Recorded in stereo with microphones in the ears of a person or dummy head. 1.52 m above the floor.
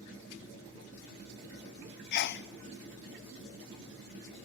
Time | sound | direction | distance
2.1 | a sneeze | 50° left (ahead or behind) | 0.6 m